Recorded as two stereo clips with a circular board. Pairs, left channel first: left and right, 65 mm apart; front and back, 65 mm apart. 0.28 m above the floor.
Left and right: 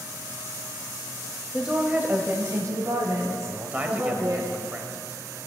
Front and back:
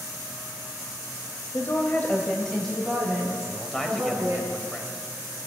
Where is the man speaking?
70° right, 1.2 m.